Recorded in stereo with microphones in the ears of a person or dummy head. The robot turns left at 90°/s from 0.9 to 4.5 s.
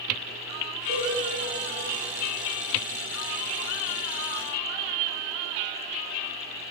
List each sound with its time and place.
0.9 s a cowbell: 30° right (ahead or behind), 1.6 m; by 1.1 s 15° right (ahead or behind), 1.6 m